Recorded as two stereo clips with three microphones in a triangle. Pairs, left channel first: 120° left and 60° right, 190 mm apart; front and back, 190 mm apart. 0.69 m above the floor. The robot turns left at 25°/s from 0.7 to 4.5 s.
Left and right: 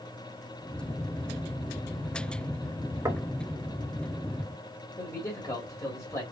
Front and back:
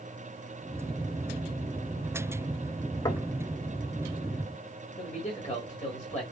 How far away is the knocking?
About 0.7 m.